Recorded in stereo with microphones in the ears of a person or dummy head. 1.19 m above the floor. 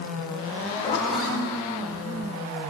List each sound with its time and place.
0.8 s a zipper: 35° left (ahead or behind), 2.0 m